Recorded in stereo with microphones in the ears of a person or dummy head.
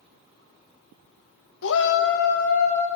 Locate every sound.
1.6 s a shout: 60° left (ahead or behind), 1.2 m; by 2.9 s 45° left (ahead or behind), 2 m